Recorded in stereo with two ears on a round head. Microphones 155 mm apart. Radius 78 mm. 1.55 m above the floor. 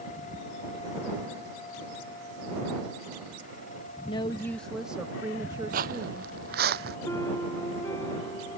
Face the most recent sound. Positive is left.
turn(degrees=15)  # may be behind; listen again after turning